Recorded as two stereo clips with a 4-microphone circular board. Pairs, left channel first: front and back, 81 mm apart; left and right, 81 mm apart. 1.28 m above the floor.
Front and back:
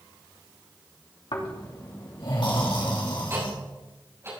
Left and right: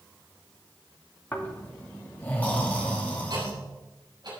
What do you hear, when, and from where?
1.3 s snoring: 20° left, 3 m
3.3 s ticking: 120° right, 7 m